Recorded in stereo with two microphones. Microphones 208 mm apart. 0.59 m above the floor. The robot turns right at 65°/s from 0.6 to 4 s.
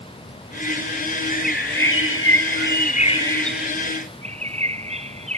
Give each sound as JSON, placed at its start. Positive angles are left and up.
{"t": 1.3, "sound": "a bird", "azimuth_deg": 35}